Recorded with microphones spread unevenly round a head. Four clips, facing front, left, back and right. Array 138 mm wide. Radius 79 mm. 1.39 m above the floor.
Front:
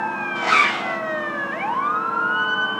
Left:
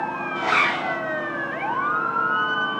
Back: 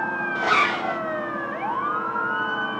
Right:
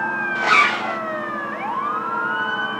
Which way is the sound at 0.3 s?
170° right.